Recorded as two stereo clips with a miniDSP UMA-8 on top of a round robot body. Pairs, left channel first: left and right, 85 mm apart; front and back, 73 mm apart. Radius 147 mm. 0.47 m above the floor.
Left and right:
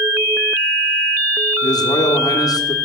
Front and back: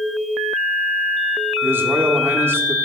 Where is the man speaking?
125° left, 1.4 m.